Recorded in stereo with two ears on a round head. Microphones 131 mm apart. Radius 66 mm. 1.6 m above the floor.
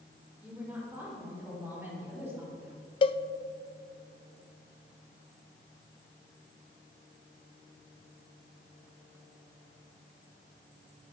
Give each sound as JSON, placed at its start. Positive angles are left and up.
{"t": 0.4, "sound": "a woman speaking", "side_deg": -10, "distance_m": 6.0}
{"t": 3.0, "sound": "a cowbell", "side_deg": 35, "distance_m": 0.6}